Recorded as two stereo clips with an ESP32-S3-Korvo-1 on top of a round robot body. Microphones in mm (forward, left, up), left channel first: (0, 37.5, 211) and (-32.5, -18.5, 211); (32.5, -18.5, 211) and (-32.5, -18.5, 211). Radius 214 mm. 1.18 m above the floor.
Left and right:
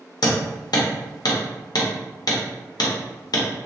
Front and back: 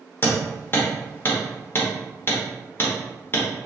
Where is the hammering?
55° left, 0.8 m.